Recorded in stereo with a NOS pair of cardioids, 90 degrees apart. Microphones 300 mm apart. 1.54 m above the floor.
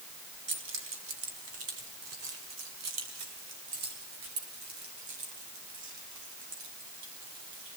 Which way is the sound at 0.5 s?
40° right.